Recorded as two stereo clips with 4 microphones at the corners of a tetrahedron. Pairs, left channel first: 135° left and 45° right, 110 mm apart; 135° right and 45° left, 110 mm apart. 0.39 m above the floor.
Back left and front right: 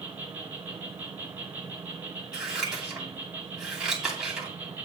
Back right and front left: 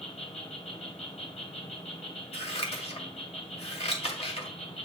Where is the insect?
120° right, 3 m.